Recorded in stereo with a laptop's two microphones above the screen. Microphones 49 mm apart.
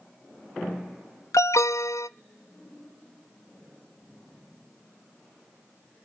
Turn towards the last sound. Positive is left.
turn(degrees=85)